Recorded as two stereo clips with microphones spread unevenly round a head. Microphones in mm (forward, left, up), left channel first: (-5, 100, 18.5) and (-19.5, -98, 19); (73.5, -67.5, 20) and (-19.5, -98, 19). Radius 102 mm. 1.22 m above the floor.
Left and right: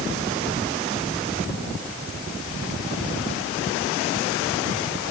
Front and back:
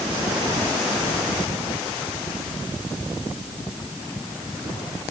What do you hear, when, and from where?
Only background noise.